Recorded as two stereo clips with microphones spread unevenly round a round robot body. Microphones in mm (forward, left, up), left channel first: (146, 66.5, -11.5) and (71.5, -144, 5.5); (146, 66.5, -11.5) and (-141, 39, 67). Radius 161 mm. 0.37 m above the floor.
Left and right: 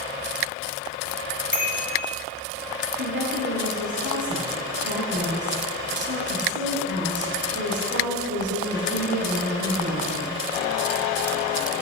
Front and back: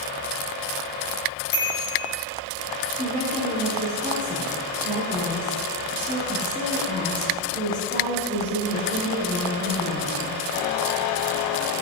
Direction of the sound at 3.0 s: 80° right.